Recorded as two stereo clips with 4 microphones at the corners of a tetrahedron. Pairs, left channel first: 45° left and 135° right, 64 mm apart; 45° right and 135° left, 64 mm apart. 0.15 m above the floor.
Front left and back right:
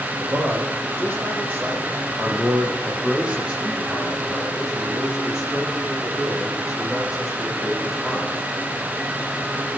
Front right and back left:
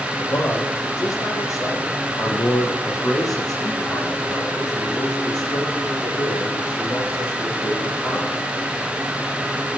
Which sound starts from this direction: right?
A man speaking, at 0.2 s.